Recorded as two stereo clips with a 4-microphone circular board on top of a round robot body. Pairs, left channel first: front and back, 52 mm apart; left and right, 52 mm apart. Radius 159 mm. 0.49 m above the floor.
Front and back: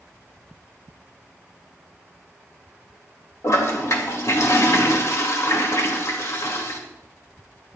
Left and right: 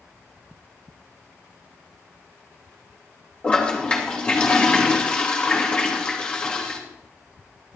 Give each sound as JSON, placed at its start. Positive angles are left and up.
{"t": 3.4, "sound": "a toilet flushing", "azimuth_deg": 20, "distance_m": 2.5}